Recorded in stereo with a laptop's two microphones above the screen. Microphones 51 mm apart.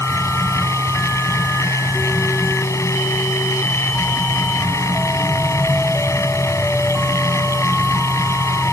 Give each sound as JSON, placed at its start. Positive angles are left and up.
{"t": 0.0, "sound": "a machine running", "side_deg": 85}